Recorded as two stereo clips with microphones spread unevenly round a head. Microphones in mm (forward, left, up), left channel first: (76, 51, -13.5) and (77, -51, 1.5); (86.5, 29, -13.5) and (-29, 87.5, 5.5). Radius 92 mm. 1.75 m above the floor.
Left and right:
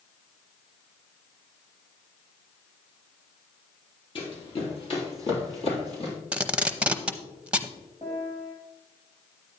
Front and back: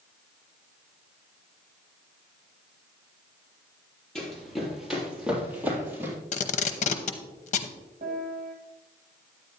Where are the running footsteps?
60° left, 3 m; by 6.2 s 85° left, 3.5 m.